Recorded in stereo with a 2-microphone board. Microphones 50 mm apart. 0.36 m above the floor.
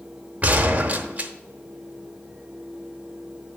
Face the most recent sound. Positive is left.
turn(degrees=-30)  # may be behind; listen again after turning